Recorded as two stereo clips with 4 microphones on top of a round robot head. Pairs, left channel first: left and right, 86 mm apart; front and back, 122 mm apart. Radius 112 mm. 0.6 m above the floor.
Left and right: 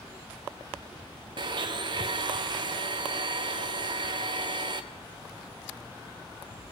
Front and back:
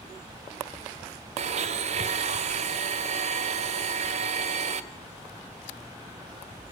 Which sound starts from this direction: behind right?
A blender, at 1.4 s.